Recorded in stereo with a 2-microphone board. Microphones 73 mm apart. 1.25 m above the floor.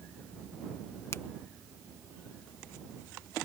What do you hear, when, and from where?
1.1 s a finger snap: 40° left (ahead or behind)